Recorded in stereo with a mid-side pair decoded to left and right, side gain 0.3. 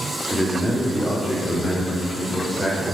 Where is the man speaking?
15° left, 3 m; by 2.8 s 25° left, 5.5 m.